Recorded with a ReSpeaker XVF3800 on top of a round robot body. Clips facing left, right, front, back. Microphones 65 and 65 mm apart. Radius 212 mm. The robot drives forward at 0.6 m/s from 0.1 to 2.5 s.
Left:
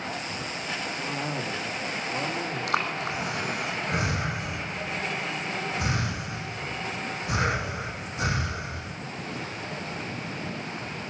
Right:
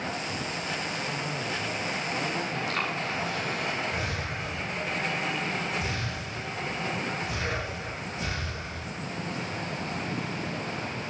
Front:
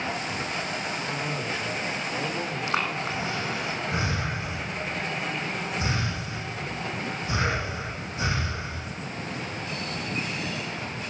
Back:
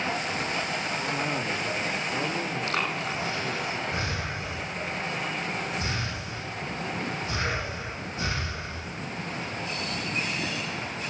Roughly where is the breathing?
Left.